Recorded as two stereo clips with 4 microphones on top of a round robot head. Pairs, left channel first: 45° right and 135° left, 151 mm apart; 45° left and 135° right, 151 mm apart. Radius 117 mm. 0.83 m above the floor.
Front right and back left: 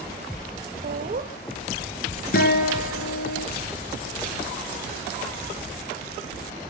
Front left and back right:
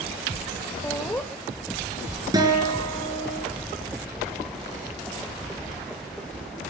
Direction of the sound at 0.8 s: 120° left.